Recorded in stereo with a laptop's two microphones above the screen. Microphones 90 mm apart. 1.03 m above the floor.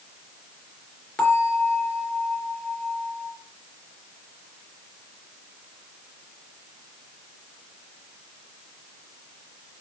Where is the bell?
10° left (ahead or behind), 3.5 m.